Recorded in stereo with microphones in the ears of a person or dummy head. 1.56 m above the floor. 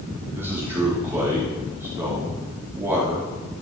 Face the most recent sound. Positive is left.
turn(degrees=-10)  # may be behind; listen again after turning